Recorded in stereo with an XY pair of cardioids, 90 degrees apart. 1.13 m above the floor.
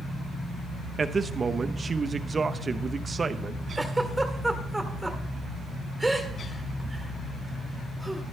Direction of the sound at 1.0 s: 35° right.